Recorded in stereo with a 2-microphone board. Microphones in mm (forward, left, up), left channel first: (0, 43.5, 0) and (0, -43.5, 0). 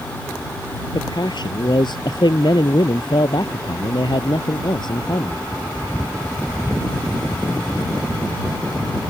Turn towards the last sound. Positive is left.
turn(degrees=60)  # may be behind; listen again after turning